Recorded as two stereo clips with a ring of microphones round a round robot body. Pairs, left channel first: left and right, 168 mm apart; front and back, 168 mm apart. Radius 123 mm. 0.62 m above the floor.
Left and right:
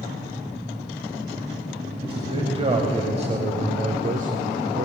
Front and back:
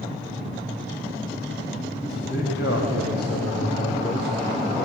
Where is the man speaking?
30° right, 4 m; by 4.8 s 70° right, 1.6 m.